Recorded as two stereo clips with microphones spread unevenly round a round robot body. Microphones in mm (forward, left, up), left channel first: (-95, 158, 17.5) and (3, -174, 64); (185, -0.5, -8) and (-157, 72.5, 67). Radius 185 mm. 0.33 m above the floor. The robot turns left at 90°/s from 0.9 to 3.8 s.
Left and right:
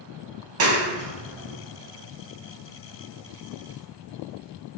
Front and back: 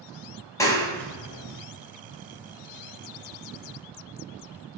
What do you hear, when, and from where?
0.6 s a clap: 65° right, 0.8 m; by 1.6 s 125° right, 0.8 m